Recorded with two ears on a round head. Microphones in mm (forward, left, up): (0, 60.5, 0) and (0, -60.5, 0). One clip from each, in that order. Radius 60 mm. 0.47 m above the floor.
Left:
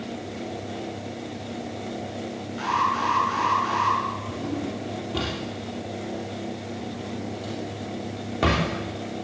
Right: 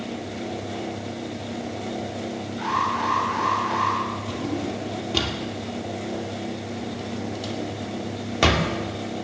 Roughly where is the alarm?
Left.